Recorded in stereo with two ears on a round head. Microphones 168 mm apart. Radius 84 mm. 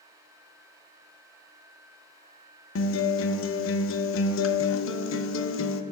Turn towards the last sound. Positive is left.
turn(degrees=75)  # may be behind; listen again after turning